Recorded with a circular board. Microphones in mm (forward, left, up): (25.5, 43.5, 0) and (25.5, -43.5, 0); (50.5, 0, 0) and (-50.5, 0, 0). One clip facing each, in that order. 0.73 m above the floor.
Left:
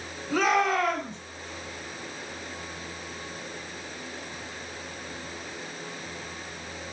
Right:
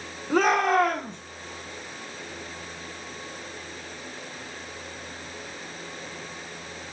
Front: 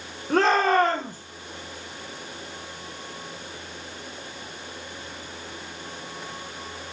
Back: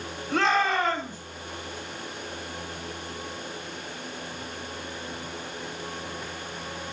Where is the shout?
35° right, 2 m.